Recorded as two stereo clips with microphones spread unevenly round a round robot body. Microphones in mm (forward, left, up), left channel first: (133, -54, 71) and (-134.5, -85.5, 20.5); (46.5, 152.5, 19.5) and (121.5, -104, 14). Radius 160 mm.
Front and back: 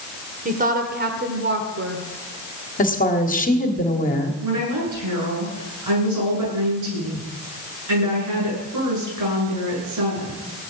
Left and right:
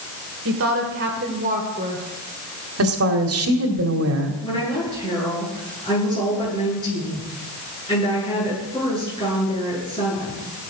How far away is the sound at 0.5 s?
About 2.5 m.